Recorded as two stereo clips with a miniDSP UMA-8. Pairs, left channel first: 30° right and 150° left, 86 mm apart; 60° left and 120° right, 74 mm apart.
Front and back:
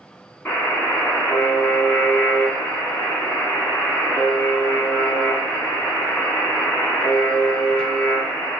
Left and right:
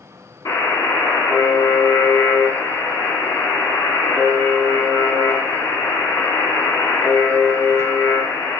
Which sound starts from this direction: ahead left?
A buzzer, at 0.5 s.